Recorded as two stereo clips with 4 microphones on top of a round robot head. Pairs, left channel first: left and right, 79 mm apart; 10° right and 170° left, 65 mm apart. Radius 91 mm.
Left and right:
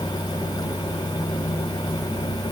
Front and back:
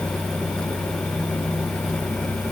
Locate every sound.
Only background noise.